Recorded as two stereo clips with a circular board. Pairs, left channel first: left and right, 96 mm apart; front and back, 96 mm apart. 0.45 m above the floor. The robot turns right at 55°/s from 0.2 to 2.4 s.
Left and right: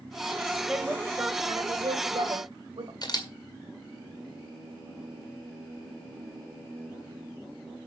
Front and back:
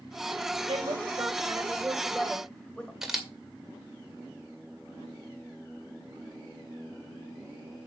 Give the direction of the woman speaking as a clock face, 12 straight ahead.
6 o'clock.